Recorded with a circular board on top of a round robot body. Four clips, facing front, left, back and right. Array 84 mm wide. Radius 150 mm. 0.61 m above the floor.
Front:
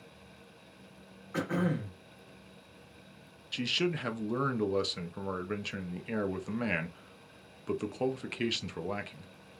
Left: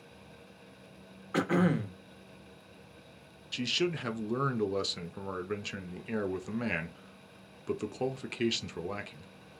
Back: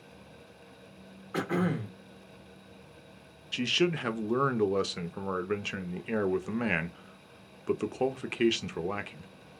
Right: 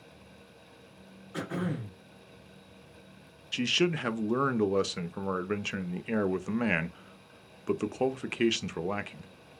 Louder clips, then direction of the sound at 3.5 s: Right 4 dB, back 4 dB; 125° right.